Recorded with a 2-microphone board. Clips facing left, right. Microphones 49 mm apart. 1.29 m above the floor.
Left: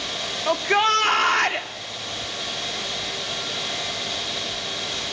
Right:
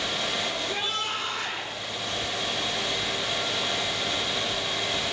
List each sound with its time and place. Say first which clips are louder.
0.5 s a shout: left 10 dB; 65° left (ahead or behind), 2.5 m